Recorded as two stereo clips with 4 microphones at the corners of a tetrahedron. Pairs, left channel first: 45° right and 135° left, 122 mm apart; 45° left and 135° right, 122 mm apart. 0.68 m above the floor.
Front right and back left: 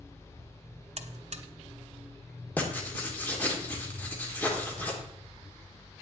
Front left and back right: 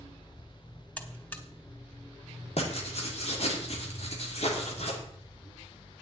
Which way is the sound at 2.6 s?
30° left.